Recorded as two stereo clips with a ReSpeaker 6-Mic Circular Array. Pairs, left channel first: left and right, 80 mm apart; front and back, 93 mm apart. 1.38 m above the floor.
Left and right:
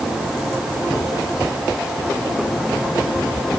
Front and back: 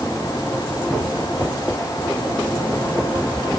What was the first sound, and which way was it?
Only background noise.